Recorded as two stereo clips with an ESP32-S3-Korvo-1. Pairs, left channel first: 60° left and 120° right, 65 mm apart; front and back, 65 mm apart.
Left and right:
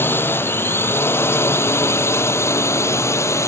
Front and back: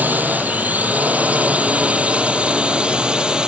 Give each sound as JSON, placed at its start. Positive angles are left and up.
{"t": 0.0, "sound": "a drone", "azimuth_deg": 115}